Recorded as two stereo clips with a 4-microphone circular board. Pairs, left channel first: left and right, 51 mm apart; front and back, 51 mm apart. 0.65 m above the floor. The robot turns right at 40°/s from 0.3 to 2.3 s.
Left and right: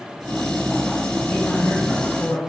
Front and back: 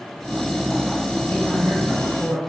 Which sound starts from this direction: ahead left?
A man speaking, at 1.3 s.